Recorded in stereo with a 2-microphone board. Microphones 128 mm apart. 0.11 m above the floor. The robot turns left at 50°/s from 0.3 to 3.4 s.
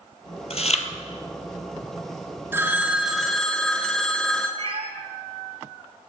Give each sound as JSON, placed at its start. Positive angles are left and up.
{"t": 0.5, "sound": "chewing", "side_deg": 50, "distance_m": 0.7}
{"t": 2.5, "sound": "a phone ringing", "azimuth_deg": -145, "distance_m": 0.8}
{"t": 4.6, "sound": "a cat meowing", "side_deg": -45, "distance_m": 0.8}